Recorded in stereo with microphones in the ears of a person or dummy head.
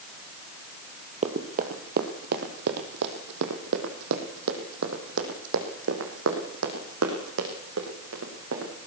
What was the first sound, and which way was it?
Running footsteps, 35° right (ahead or behind).